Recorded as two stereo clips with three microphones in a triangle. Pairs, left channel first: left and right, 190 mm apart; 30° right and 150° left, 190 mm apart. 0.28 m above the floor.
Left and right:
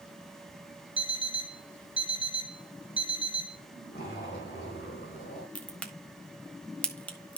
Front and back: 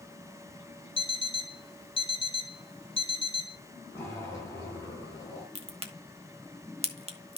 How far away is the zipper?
About 4 m.